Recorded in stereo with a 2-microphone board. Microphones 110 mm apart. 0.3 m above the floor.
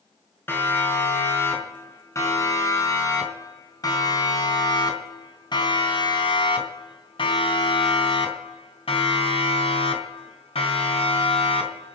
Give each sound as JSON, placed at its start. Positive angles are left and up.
{"t": 0.5, "sound": "a siren", "side_deg": 20, "distance_m": 5.5}